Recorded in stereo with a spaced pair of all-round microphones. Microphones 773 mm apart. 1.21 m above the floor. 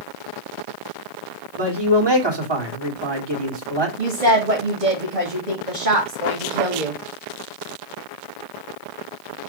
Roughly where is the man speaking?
Right.